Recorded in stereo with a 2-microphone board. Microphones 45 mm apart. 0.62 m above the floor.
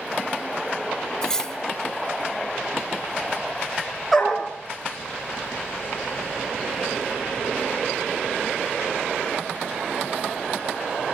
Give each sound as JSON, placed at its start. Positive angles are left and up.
{"t": 1.2, "sound": "cutlery clinking", "side_deg": 15, "distance_m": 1.7}
{"t": 4.1, "sound": "a dog barking", "side_deg": 0, "distance_m": 6.0}